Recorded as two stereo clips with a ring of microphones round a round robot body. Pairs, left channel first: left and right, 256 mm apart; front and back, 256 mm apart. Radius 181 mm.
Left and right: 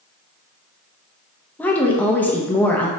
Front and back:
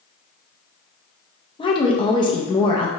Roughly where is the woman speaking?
Ahead.